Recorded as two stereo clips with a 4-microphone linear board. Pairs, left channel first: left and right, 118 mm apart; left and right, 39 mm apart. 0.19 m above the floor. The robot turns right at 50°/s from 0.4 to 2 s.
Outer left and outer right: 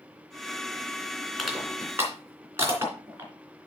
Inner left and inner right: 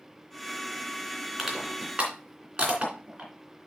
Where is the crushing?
Centre (ahead or behind), 2.5 m; by 3.3 s 25° right (ahead or behind), 2.5 m.